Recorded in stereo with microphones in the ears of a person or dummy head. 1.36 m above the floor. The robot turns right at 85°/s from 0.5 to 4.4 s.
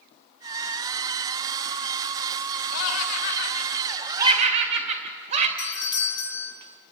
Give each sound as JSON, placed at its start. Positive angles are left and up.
{"t": 2.7, "sound": "laughter", "side_deg": 70, "distance_m": 2.5}
{"t": 5.6, "sound": "a doorbell", "side_deg": 25, "distance_m": 4.0}